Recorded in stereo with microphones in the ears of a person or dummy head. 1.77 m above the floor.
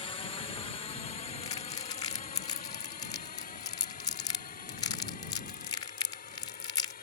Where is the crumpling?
25° left (ahead or behind).